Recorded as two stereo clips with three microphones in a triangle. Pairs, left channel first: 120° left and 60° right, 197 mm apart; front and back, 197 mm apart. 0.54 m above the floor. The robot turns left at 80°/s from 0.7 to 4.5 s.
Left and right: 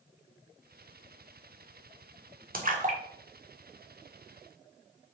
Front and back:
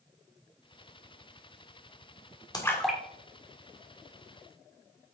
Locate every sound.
2.5 s a splash: 65° right, 1.7 m; by 4.5 s 140° left, 1.7 m